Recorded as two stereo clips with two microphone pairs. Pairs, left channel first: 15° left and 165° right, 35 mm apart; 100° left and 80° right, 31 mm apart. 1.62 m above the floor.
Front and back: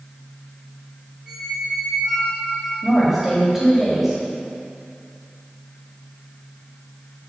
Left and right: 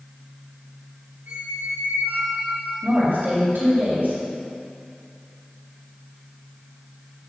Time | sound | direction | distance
1.3 | a squeak | 90° right | 2.5 m
2.8 | a woman speaking | 85° right | 3 m